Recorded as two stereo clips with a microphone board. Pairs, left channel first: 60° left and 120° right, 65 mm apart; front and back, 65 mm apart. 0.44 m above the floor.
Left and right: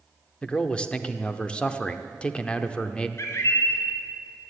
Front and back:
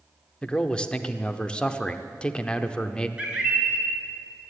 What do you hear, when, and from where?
0.4 s a man speaking: 40° left, 0.7 m
3.2 s a bird: 105° left, 2.5 m